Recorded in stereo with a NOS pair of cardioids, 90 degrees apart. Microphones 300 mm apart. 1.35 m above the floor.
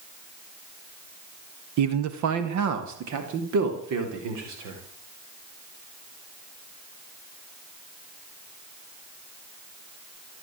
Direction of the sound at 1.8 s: 70° right.